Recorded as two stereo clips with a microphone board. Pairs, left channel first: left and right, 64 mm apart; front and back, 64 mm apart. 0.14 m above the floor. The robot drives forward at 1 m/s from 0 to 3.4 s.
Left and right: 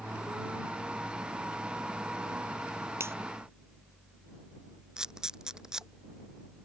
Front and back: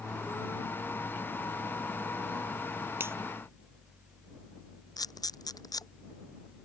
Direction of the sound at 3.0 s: 130° right.